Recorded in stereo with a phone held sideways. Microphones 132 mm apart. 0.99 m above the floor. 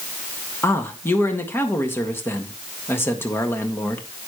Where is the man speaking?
20° left (ahead or behind), 1.5 m.